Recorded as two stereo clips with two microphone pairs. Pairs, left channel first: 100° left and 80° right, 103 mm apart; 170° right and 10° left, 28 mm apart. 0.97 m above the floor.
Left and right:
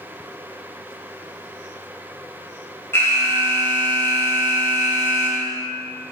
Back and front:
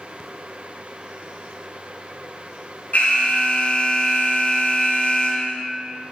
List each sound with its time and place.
2.9 s an alarm: 165° left, 3 m